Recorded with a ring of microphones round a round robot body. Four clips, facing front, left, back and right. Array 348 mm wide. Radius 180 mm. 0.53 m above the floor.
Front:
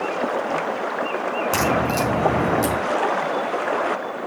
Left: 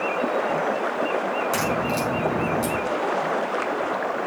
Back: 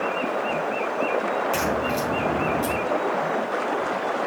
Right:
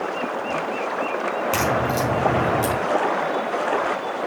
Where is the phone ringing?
No phone ringing in this recording.